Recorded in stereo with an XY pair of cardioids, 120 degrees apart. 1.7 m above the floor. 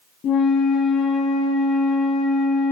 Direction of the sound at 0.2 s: 65° left.